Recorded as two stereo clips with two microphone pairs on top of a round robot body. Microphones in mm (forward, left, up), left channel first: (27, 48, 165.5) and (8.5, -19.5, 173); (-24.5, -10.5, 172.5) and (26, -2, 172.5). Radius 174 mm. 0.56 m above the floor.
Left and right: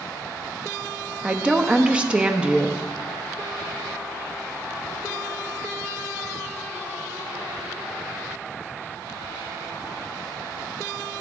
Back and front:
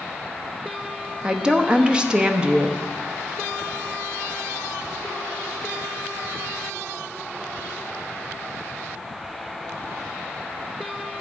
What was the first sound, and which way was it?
A woman speaking, 35° right.